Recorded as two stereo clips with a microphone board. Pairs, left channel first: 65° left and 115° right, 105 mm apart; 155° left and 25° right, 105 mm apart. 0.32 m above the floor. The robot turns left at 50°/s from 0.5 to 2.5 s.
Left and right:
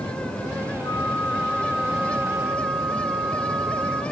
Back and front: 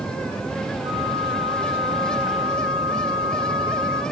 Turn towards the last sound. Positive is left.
turn(degrees=-70)